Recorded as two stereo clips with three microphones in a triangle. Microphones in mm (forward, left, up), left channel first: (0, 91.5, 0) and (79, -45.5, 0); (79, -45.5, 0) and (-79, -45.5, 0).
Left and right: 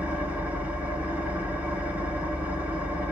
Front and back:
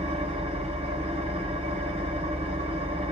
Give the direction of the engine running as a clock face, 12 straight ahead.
5 o'clock.